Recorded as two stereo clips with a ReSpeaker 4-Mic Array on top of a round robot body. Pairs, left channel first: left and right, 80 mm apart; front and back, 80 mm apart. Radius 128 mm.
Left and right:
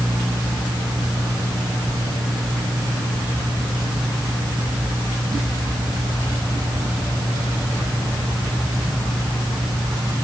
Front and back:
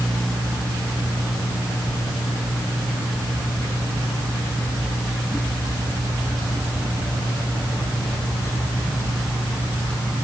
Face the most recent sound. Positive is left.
No sound to turn to.